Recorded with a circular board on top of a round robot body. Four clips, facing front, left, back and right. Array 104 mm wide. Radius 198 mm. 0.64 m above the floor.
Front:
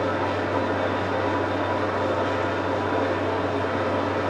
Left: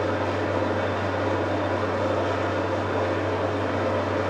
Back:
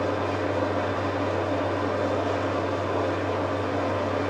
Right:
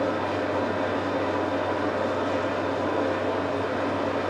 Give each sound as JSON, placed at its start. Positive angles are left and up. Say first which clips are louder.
{"t": 0.0, "sound": "an engine running", "louder": "left 1 dB, front 2 dB", "azimuth_deg": 15, "distance_m": 5.0}